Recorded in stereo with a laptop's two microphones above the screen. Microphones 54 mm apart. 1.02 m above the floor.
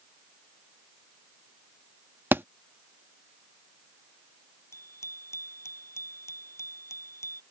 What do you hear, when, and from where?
2.3 s a thud: 40° right (ahead or behind)
4.7 s a bicycle bell: 60° left (ahead or behind)